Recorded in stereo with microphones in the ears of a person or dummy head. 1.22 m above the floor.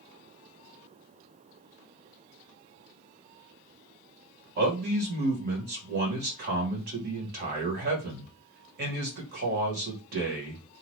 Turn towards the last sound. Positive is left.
turn(degrees=-50)  # may be behind; listen again after turning